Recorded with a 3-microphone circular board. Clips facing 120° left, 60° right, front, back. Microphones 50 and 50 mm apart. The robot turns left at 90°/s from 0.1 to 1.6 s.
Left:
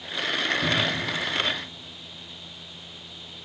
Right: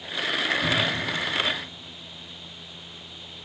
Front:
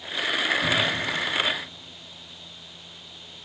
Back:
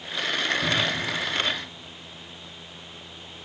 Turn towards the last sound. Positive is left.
turn(degrees=25)